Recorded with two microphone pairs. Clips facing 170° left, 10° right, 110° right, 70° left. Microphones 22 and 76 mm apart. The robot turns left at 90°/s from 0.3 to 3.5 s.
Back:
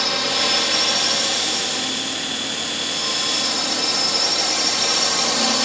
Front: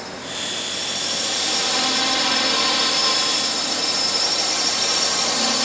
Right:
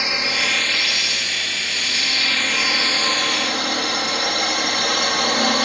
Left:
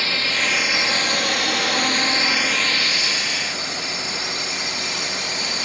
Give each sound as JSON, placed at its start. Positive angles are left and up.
{"t": 0.0, "sound": "a drone", "azimuth_deg": 180}